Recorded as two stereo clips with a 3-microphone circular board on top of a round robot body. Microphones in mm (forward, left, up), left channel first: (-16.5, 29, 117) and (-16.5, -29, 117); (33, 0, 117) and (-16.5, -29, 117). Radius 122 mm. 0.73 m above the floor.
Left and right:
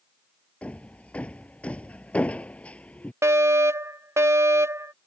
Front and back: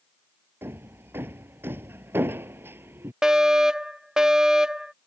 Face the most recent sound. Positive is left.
turn(degrees=-75)